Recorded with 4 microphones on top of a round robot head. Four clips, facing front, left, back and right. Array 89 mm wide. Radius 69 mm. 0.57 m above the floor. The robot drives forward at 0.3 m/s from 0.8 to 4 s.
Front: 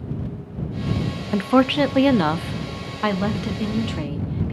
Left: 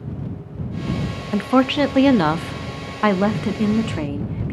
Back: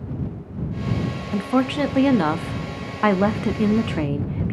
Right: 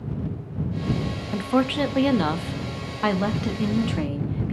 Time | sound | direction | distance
1.3 | a woman speaking | 40° left | 0.7 m